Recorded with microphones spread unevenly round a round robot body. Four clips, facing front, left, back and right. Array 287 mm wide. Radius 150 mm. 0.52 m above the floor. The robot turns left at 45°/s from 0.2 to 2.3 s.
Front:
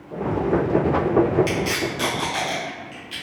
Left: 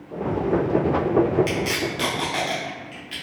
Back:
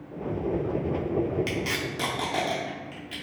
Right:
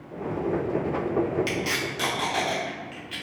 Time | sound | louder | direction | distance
1.5 | tape being pulled | left 4 dB, front 6 dB | 165° right | 0.8 m